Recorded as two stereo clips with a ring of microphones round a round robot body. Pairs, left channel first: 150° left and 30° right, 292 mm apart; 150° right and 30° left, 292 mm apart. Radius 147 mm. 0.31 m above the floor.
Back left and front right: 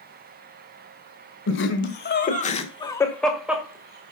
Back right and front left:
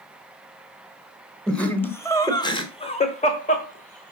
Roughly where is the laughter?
Behind left.